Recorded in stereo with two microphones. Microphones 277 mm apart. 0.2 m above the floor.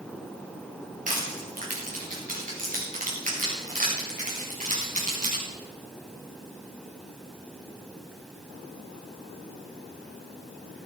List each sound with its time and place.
1.1 s crushing: 30° right (ahead or behind), 4.5 m